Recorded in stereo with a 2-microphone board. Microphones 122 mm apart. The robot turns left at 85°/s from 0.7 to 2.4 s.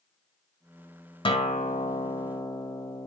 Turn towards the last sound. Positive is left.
turn(degrees=35)